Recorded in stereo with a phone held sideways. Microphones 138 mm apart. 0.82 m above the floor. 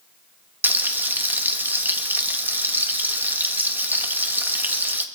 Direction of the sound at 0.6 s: 15° right (ahead or behind).